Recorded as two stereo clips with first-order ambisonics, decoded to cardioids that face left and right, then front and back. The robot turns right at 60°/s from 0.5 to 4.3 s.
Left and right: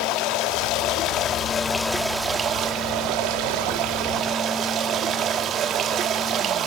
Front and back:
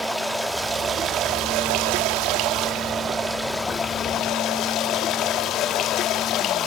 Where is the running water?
90° left, 1.4 m; by 6.7 s 40° right, 1.4 m.